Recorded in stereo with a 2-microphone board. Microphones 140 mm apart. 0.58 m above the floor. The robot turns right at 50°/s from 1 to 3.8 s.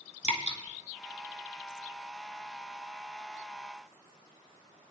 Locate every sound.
0.2 s dripping: 55° left (ahead or behind), 2 m